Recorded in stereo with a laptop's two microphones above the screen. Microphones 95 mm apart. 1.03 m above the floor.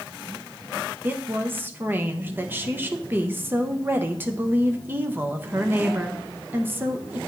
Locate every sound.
1.0 s a woman speaking: 20° right (ahead or behind), 0.6 m